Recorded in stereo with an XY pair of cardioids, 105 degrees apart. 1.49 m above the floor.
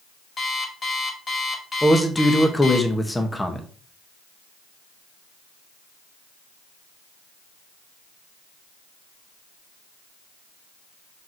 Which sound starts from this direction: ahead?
A man speaking, at 1.8 s.